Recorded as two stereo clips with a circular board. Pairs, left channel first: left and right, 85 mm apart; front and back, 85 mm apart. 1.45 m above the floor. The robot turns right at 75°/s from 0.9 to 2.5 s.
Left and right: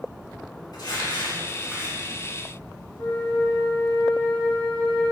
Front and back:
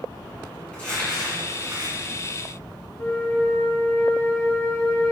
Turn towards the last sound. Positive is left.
turn(degrees=80)